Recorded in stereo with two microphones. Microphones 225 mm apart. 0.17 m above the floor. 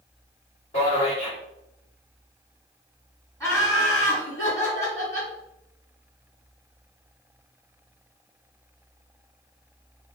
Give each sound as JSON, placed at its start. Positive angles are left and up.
{"t": 0.7, "sound": "a man speaking", "side_deg": 30, "distance_m": 1.9}
{"t": 3.4, "sound": "laughter", "side_deg": 15, "distance_m": 1.9}